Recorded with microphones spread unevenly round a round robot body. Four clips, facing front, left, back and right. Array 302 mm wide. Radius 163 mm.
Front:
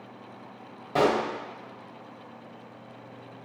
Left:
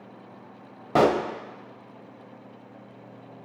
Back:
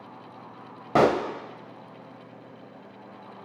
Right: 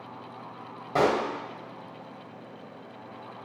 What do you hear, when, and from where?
0.9 s a pop: 145° left, 0.5 m